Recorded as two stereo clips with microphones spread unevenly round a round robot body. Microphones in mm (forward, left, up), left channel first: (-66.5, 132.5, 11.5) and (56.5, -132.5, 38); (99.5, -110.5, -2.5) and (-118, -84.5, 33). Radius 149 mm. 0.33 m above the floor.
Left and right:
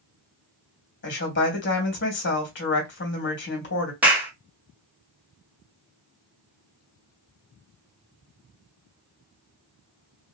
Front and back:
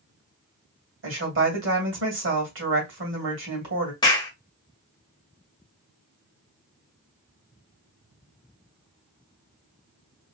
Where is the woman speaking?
145° left, 1.8 m.